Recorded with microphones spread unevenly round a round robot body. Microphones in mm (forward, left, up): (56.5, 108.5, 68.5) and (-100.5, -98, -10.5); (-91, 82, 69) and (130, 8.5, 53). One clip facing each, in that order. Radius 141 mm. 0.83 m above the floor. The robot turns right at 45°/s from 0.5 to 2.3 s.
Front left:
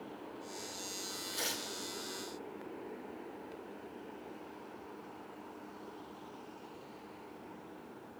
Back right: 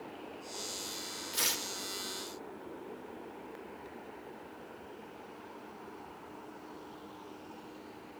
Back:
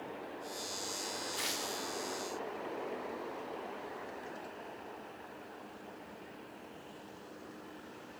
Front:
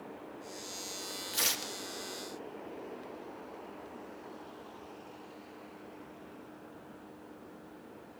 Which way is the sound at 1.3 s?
60° right.